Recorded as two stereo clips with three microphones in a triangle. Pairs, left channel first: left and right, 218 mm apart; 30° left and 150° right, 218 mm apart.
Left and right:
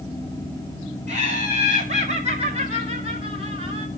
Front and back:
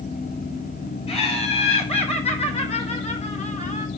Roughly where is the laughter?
Ahead right.